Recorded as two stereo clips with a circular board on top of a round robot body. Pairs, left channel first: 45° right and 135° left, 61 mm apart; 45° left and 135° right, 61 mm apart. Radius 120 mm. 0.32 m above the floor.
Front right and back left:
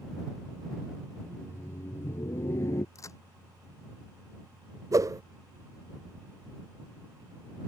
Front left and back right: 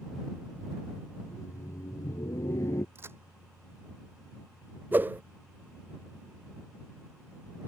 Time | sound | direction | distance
1.2 | laughter | 10° left | ?
3.0 | a crack | 85° right | ?
4.9 | a whoosh | 165° left | ?